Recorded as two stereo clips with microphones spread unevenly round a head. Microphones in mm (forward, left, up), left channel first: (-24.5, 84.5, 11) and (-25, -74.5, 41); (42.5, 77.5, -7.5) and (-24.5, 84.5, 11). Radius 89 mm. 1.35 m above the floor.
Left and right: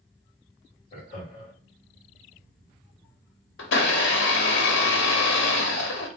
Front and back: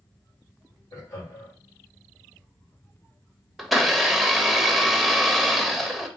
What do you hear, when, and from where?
0.9 s laughter: 25° left, 3 m
3.6 s a blender: 85° left, 1.0 m